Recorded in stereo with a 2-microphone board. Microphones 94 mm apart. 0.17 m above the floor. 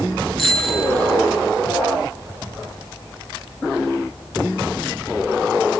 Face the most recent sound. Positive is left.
turn(degrees=0)  # may be behind; listen again after turning